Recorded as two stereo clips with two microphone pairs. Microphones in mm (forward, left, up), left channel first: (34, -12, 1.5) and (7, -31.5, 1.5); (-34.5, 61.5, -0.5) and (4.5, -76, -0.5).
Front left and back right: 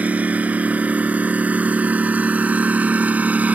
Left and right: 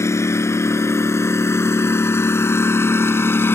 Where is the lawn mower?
175° left; by 3.6 s straight behind.